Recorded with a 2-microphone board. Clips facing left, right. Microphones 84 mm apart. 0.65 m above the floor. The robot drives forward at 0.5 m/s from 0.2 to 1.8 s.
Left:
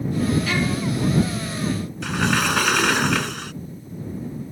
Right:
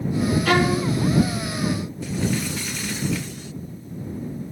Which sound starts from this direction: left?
A sliding door, at 2.0 s.